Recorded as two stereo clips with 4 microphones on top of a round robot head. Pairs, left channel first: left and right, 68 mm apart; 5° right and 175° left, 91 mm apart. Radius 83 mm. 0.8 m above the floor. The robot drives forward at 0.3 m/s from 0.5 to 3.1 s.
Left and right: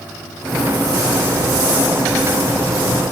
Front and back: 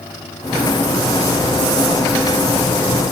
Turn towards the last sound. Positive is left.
No sound to turn to.